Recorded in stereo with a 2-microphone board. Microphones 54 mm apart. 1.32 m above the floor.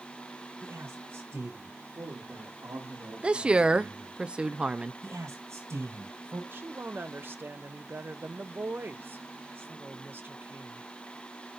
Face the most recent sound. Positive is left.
turn(degrees=-45)  # may be behind; listen again after turning